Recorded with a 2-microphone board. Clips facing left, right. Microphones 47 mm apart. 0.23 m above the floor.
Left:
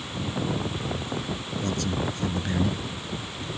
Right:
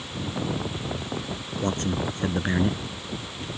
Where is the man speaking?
35° right (ahead or behind).